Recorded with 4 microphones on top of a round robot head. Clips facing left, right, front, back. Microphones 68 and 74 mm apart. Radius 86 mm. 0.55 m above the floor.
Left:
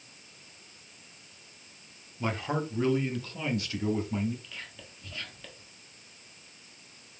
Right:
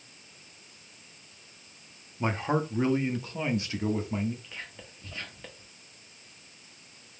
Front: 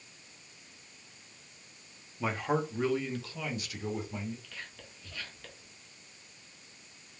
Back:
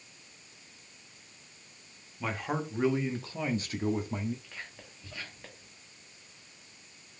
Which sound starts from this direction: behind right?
Whispering, at 4.4 s.